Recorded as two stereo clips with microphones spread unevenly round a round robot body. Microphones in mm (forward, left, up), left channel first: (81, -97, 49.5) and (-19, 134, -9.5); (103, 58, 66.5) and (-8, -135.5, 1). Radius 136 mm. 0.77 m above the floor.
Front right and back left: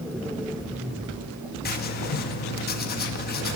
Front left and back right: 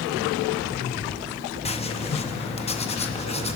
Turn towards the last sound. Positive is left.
turn(degrees=-10)